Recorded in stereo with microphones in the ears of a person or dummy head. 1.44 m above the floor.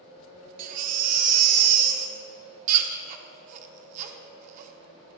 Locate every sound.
0.6 s a baby crying: 45° right (ahead or behind), 0.6 m